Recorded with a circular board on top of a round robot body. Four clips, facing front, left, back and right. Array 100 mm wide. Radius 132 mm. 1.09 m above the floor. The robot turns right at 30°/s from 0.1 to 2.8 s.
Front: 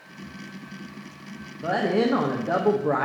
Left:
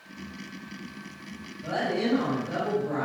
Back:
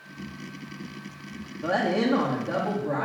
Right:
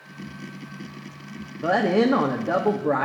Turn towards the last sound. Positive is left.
turn(degrees=-45)